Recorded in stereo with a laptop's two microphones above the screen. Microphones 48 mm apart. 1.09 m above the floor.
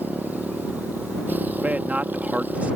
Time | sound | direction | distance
0.0 | a motorcycle | 35° right (ahead or behind) | ?
1.6 | a man speaking | 30° right (ahead or behind) | ?